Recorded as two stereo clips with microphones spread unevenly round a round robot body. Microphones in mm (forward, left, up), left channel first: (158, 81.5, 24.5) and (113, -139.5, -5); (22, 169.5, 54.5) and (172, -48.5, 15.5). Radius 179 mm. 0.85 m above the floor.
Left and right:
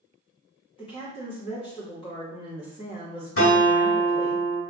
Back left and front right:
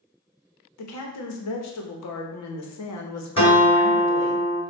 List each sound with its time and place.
0.8 s a woman speaking: 155° left, 0.7 m
3.4 s a guitar: 55° left, 1.9 m